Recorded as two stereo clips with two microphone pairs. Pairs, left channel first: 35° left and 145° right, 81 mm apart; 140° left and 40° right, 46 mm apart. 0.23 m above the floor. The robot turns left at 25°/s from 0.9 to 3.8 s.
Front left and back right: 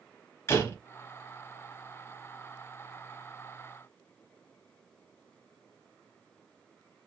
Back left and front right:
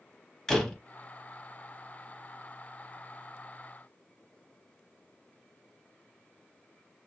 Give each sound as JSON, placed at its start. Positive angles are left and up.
{"t": 0.5, "sound": "a door slam", "azimuth_deg": 65, "distance_m": 0.8}